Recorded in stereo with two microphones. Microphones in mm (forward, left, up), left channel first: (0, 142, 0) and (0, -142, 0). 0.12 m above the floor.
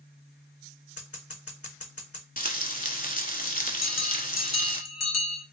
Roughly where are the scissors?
Left.